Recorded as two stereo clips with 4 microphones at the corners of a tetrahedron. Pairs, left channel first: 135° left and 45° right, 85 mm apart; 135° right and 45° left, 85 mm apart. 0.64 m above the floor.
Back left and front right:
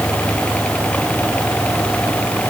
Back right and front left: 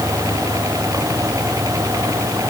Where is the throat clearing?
I don't hear throat clearing.